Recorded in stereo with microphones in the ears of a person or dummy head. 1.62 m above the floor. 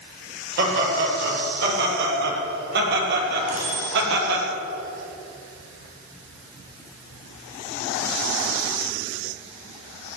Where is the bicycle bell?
75° right (ahead or behind), 7 m.